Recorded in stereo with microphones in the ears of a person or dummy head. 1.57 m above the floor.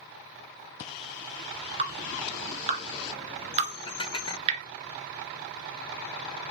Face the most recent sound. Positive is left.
turn(degrees=20)  # may be behind; listen again after turning